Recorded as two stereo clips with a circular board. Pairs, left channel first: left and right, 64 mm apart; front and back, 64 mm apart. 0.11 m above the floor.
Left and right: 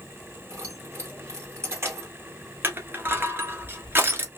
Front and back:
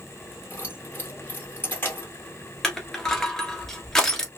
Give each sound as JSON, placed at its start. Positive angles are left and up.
{"t": 0.5, "sound": "keys jangling", "azimuth_deg": -50, "distance_m": 1.7}
{"t": 2.6, "sound": "crushing", "azimuth_deg": -75, "distance_m": 1.0}